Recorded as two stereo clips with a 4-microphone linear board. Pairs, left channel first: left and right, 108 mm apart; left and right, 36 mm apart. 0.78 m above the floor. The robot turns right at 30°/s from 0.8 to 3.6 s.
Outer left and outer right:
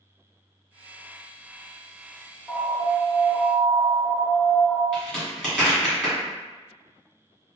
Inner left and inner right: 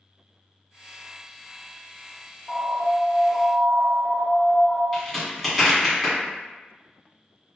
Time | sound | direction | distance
2.5 | an alarm | 10° left | 1.9 m
4.9 | a crack | 5° left (ahead or behind) | 1.8 m